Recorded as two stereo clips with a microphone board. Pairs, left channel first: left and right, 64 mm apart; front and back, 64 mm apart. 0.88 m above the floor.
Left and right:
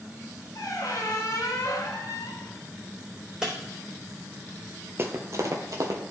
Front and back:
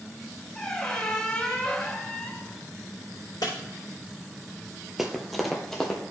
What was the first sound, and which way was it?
A squeak, 75° left.